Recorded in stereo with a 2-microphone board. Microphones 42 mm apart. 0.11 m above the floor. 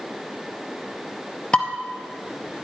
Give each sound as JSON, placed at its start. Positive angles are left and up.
{"t": 1.5, "sound": "dishes clattering", "side_deg": 25, "distance_m": 1.6}